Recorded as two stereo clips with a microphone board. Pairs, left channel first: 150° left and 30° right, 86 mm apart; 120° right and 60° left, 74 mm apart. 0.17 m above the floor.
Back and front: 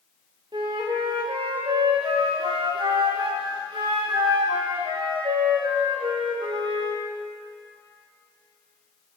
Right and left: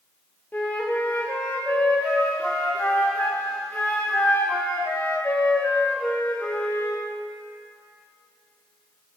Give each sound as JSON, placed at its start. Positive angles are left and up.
{"t": 0.5, "sound": "a flute", "azimuth_deg": -55, "distance_m": 6.0}